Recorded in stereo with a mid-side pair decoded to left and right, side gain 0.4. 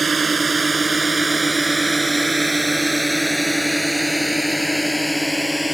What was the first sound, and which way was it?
A drone, 40° right.